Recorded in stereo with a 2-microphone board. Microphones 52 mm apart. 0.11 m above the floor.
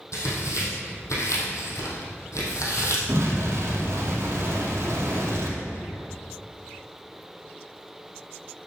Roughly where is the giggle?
I don't hear a giggle.